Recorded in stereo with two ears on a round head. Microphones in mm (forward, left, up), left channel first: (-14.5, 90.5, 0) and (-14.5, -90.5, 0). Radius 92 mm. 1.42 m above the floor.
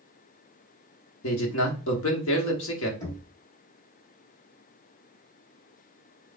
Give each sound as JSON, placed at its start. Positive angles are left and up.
{"t": 1.2, "sound": "a man speaking", "side_deg": 65, "distance_m": 1.3}
{"t": 3.0, "sound": "knocking", "side_deg": 20, "distance_m": 2.5}